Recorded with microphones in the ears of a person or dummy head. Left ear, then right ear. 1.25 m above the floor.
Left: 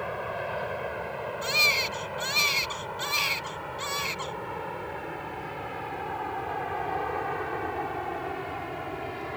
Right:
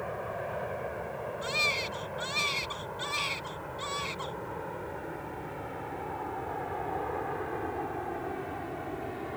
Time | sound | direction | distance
0.0 | an aircraft | 70° left (ahead or behind) | ?
1.4 | a baby crying | 30° left (ahead or behind) | ?